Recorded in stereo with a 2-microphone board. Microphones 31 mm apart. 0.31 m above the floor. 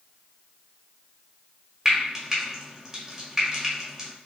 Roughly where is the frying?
Centre.